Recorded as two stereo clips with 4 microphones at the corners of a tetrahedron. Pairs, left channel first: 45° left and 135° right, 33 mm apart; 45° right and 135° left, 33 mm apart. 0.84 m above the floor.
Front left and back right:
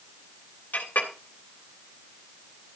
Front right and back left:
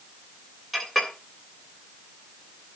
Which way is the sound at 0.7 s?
40° left.